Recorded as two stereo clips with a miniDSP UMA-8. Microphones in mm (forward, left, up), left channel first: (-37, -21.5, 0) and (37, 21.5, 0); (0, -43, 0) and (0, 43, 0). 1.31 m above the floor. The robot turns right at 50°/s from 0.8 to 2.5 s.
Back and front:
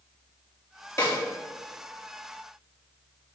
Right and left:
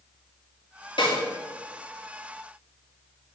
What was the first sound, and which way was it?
A snare drum, 95° right.